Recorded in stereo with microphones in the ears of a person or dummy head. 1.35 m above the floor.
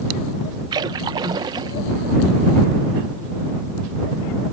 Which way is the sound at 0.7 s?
25° right (ahead or behind).